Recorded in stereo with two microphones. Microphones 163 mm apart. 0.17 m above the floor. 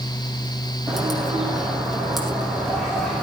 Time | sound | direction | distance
0.9 | a bird | centre (ahead or behind) | 6.5 m